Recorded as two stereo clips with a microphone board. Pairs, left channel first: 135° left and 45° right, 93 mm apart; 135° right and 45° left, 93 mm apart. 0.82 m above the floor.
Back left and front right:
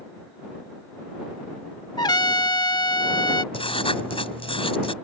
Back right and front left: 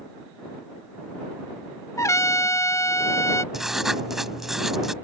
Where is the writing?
130° left.